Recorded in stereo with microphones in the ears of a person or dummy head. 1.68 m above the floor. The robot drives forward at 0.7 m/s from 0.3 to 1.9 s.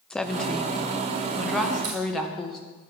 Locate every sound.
0.1 s a woman speaking: 5° left (ahead or behind), 0.7 m
1.8 s a crack: 45° right (ahead or behind), 2.5 m